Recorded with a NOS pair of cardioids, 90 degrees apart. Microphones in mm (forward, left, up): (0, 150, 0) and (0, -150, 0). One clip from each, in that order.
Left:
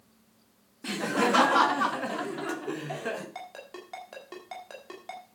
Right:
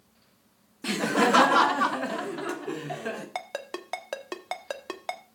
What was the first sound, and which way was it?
Laughter, 30° right.